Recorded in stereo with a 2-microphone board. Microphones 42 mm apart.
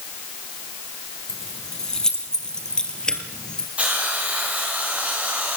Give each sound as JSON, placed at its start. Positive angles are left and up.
{"t": 1.3, "sound": "keys jangling", "side_deg": 15, "distance_m": 4.0}
{"t": 3.8, "sound": "a hiss", "side_deg": -35, "distance_m": 9.5}